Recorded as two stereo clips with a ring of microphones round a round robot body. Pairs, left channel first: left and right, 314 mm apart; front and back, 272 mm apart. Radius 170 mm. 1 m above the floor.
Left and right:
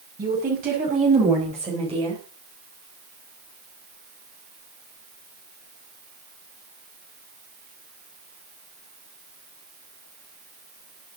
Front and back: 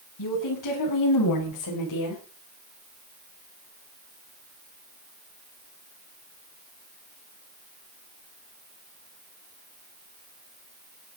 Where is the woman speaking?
25° right, 6 m; by 2.2 s 15° right, 3.5 m.